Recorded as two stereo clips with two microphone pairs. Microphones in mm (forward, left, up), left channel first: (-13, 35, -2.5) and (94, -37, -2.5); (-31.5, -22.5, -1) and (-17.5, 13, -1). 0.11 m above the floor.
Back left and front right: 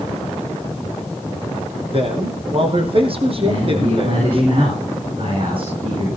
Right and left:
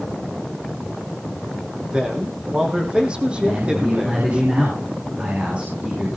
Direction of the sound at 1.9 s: 5° left.